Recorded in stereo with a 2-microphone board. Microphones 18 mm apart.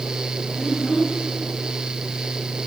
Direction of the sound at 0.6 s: 25° right (ahead or behind).